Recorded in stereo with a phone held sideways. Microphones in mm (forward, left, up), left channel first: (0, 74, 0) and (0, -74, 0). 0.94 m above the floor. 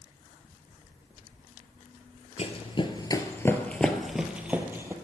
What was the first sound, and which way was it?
Running footsteps, 45° left (ahead or behind).